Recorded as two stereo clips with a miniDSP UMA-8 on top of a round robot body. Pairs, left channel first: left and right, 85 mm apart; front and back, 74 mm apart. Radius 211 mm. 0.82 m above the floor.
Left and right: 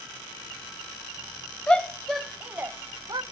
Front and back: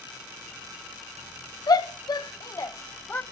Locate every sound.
1.7 s a shout: 15° left, 1.9 m; by 3.2 s 65° right, 1.5 m